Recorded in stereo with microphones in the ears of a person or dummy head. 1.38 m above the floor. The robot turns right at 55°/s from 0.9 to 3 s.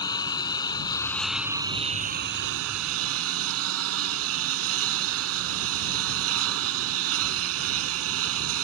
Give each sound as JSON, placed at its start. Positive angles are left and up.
{"t": 0.0, "sound": "a lawn mower", "azimuth_deg": 160}